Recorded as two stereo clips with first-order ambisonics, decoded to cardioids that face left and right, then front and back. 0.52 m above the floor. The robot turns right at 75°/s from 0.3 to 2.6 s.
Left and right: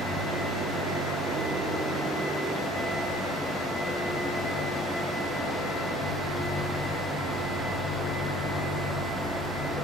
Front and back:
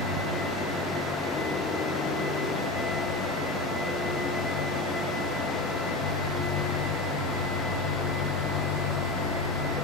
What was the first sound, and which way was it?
An engine running, 150° right.